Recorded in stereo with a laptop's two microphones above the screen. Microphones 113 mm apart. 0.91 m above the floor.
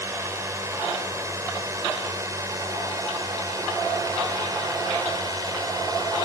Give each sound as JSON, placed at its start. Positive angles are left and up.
{"t": 0.0, "sound": "a drone", "side_deg": -25}